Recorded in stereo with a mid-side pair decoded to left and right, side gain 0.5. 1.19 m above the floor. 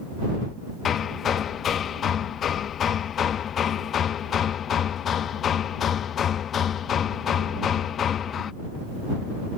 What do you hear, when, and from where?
0.8 s hammering: 50° left